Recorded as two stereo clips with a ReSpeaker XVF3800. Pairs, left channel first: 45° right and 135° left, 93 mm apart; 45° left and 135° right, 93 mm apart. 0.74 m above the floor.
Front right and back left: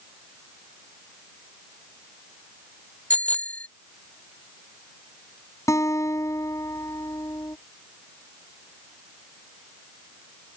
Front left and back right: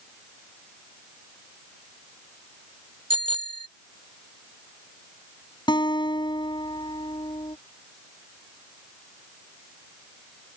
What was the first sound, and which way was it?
A bicycle bell, 120° right.